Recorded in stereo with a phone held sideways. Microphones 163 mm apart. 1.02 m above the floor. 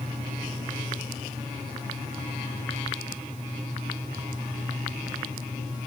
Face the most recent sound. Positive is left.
No sound to turn to.